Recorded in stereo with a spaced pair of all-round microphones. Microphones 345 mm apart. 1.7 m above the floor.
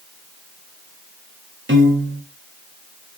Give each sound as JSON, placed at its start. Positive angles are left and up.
{"t": 1.7, "sound": "a piano", "side_deg": -35, "distance_m": 0.9}